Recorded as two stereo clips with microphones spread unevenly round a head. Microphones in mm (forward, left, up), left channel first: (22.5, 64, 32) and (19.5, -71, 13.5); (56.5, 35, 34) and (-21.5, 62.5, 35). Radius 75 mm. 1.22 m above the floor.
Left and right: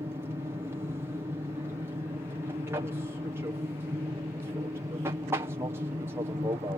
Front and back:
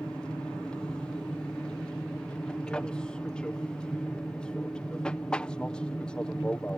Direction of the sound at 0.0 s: 85° right.